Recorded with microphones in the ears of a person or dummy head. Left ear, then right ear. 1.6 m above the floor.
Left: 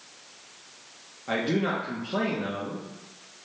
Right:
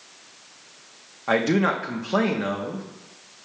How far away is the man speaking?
About 0.6 m.